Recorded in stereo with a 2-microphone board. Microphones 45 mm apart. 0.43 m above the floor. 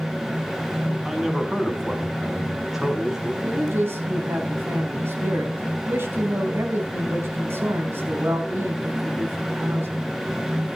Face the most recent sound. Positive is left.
turn(degrees=-60)  # may be behind; listen again after turning